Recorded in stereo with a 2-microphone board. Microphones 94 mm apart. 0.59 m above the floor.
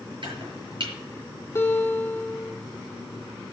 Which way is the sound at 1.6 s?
30° left (ahead or behind).